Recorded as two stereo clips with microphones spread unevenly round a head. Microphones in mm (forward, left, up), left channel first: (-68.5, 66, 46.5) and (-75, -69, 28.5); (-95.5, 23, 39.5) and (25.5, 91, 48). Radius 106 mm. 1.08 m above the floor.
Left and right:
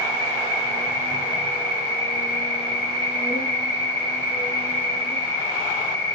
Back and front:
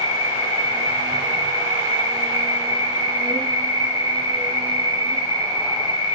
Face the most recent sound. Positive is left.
turn(degrees=155)